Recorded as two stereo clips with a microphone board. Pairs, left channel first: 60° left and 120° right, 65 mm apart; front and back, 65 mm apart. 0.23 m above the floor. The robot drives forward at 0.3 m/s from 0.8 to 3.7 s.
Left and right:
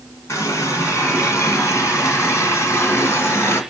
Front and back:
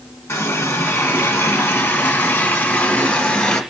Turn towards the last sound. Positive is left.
turn(degrees=75)